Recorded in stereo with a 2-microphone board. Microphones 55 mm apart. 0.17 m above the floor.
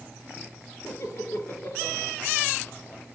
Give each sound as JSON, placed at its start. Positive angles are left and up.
{"t": 0.8, "sound": "laughter", "side_deg": 60, "distance_m": 3.0}